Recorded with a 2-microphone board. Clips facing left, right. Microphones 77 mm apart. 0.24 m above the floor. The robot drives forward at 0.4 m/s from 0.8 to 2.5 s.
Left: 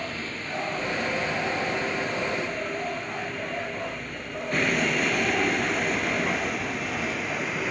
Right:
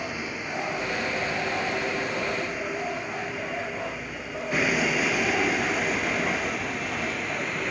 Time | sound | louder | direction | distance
0.0 | a vehicle | right 1 dB | 10° right (ahead or behind) | ?